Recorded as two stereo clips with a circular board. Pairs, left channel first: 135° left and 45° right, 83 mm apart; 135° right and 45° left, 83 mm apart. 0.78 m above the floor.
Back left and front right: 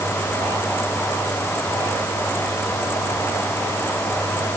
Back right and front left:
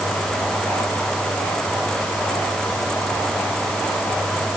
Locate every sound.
Only background noise.